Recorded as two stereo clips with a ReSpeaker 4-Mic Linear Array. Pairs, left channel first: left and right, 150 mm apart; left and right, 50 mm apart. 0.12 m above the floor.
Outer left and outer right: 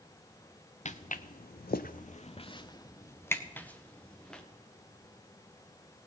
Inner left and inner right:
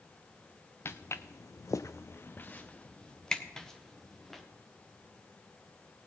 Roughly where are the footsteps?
Left.